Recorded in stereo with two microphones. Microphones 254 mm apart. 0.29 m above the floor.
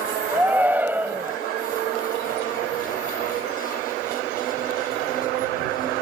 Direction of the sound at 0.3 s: 10° right (ahead or behind).